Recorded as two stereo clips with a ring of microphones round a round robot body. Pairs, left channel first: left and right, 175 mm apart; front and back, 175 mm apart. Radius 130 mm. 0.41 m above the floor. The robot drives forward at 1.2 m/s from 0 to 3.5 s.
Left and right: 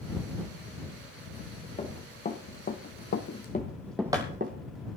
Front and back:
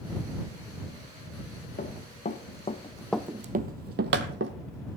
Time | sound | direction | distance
1.8 | running footsteps | 40° left | 2.5 m